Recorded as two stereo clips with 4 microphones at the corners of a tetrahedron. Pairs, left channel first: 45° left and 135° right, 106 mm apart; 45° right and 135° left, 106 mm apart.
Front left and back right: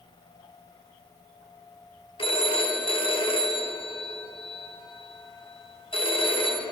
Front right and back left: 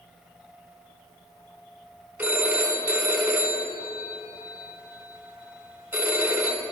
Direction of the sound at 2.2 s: 60° left.